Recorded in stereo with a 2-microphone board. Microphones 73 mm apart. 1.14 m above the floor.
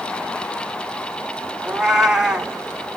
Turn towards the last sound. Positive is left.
turn(degrees=-10)  # may be behind; listen again after turning